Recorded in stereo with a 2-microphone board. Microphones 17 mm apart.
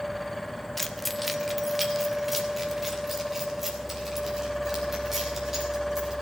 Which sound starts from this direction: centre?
Keys jangling, at 0.8 s.